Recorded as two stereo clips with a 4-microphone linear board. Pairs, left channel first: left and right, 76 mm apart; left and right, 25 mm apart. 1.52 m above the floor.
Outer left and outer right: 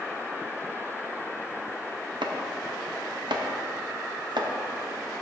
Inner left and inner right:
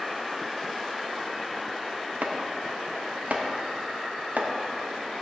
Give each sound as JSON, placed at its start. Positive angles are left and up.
{"t": 2.2, "sound": "chopping", "side_deg": -80, "distance_m": 0.8}